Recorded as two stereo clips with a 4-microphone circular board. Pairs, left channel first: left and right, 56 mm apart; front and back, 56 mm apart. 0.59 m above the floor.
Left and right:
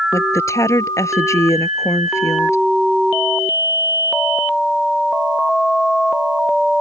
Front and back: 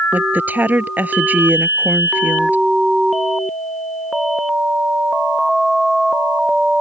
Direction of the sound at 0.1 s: 120° left.